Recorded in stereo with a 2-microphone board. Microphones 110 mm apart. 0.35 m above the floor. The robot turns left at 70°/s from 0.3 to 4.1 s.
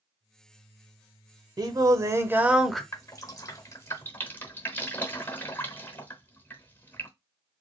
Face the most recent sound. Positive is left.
turn(degrees=15)  # may be behind; listen again after turning